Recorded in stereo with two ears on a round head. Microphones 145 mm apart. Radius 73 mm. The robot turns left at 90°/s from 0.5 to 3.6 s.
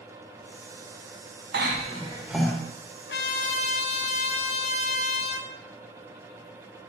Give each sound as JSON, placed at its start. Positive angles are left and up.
{"t": 1.5, "sound": "a cough", "azimuth_deg": -105, "distance_m": 1.5}
{"t": 3.1, "sound": "a trumpet", "azimuth_deg": 90, "distance_m": 0.8}